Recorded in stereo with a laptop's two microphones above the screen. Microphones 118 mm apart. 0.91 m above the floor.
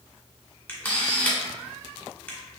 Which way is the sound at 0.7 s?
15° left (ahead or behind).